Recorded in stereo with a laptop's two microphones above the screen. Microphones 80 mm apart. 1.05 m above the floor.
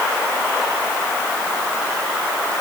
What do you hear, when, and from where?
Only background noise.